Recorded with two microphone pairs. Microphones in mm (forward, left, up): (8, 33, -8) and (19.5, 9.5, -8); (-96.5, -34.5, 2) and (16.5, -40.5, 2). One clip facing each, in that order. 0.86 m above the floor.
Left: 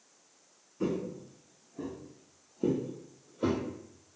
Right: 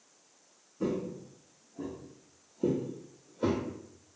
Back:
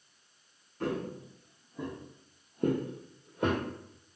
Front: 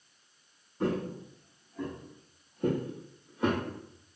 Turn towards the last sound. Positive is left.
turn(degrees=-165)